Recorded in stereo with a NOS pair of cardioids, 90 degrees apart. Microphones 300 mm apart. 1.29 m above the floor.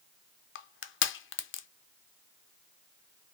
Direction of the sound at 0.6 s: 40° left.